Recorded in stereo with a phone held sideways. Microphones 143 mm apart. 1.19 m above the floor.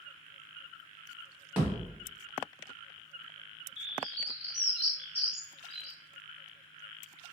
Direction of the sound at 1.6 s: 10° right (ahead or behind).